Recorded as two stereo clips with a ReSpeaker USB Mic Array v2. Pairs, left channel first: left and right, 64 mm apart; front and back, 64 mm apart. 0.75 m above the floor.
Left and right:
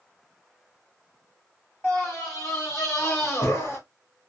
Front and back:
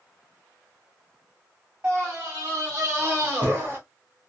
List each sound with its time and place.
1.8 s a scream: 130° left, 1.2 m; by 3.8 s 125° left, 2.0 m